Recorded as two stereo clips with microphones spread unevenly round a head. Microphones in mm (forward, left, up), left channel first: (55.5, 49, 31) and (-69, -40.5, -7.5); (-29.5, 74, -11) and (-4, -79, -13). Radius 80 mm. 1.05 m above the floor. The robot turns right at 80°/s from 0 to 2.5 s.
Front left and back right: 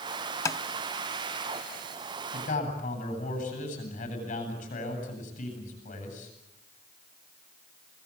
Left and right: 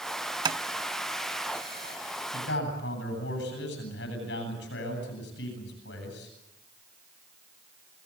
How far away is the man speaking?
About 10 m.